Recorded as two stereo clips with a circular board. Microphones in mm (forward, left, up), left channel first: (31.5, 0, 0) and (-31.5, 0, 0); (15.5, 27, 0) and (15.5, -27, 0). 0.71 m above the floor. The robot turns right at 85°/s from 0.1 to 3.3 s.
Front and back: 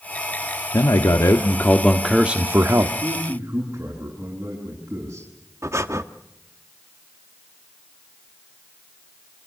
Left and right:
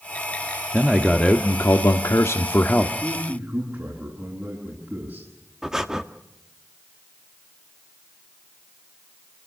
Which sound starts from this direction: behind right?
A man speaking, at 3.0 s.